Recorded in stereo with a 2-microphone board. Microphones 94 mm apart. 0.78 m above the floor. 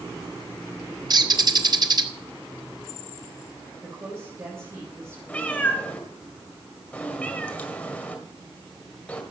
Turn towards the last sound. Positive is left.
turn(degrees=10)  # may be behind; listen again after turning